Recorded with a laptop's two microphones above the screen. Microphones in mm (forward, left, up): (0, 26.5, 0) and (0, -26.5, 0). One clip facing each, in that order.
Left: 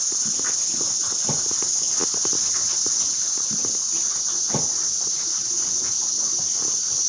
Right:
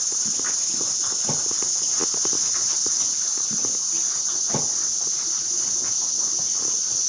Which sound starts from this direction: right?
An insect, at 0.0 s.